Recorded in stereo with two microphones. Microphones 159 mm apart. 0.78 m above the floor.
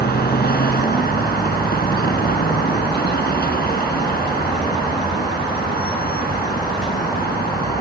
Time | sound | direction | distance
0.0 | a vehicle | 80° left | ?